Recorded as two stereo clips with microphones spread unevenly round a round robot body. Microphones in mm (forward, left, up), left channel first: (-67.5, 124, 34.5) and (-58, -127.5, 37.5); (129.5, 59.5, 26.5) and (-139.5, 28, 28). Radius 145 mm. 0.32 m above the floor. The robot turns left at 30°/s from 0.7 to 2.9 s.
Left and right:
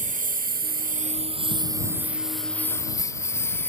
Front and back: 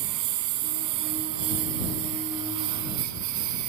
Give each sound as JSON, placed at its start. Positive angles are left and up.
{"t": 0.0, "sound": "a lawn mower", "azimuth_deg": -145}